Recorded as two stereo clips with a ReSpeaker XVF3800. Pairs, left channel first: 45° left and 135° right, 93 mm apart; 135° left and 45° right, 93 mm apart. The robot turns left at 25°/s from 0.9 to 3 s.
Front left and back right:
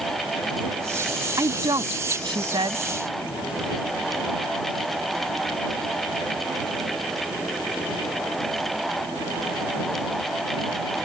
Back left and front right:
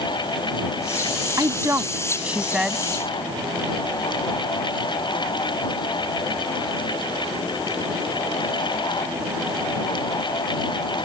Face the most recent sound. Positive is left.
turn(degrees=-135)